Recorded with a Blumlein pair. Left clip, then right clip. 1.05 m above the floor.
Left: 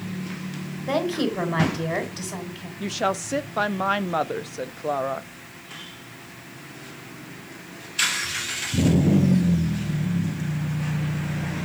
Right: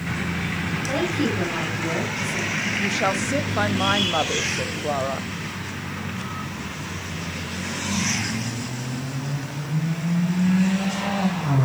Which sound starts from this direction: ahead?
A woman speaking, at 2.8 s.